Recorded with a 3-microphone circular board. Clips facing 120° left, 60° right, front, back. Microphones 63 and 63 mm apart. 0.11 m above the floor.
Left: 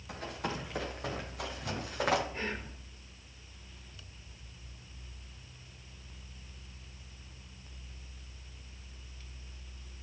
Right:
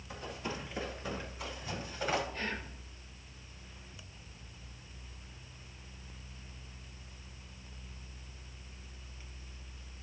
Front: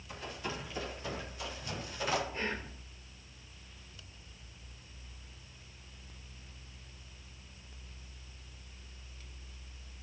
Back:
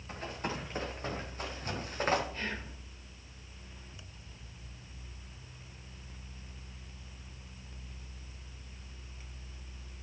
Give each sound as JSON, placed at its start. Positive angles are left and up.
{"t": 0.1, "sound": "running footsteps", "azimuth_deg": 135, "distance_m": 5.0}
{"t": 2.3, "sound": "whispering", "azimuth_deg": 60, "distance_m": 4.5}